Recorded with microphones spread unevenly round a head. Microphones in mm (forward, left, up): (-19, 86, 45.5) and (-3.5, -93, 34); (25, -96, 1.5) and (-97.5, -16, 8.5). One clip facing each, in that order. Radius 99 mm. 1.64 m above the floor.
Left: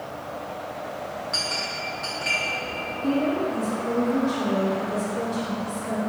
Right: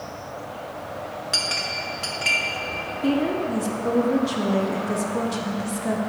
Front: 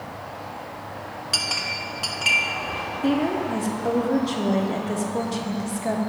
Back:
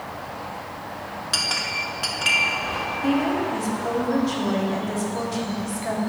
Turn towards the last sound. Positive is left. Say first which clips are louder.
# right 1 dB, even
turn(degrees=-90)